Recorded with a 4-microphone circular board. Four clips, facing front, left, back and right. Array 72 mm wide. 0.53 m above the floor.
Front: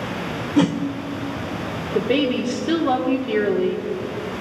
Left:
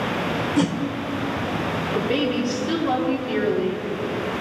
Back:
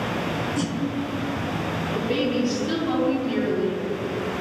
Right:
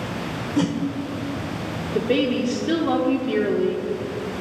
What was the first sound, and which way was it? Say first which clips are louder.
A whoosh: right 1 dB, front 9 dB; 5° left.